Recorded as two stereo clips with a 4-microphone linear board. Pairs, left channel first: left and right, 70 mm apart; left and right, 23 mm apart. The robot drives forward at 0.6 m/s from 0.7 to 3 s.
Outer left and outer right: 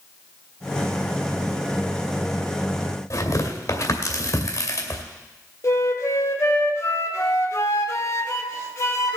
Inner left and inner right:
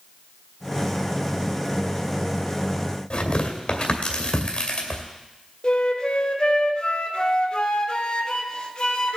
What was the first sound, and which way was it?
Tearing paper, 45° left (ahead or behind).